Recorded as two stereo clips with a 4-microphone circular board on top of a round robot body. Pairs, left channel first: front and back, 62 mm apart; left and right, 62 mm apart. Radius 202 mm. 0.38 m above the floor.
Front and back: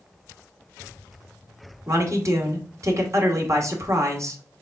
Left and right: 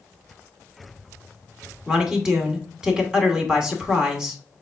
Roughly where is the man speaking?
Behind.